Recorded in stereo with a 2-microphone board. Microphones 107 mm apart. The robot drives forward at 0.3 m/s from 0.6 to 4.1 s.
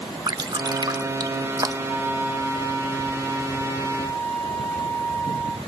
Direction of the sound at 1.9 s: 15° left (ahead or behind).